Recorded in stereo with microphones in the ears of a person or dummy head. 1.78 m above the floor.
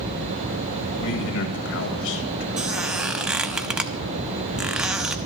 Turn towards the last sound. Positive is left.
turn(degrees=-5)  # may be behind; listen again after turning